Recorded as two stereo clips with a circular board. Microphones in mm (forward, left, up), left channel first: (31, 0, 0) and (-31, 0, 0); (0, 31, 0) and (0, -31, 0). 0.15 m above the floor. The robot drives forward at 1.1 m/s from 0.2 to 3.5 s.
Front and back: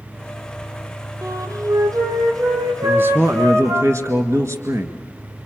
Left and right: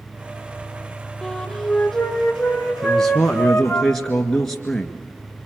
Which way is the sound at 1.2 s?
170° left.